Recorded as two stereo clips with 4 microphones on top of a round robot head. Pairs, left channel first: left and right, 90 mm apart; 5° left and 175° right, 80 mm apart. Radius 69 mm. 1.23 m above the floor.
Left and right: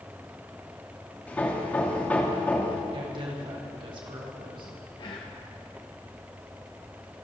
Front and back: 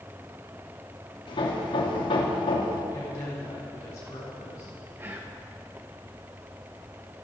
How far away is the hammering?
About 2.5 m.